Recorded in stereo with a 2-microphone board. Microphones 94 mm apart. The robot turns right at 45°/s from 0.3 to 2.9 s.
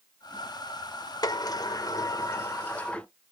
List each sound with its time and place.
1.2 s a sliding door: 85° left, 0.5 m; by 3.1 s 160° left, 0.5 m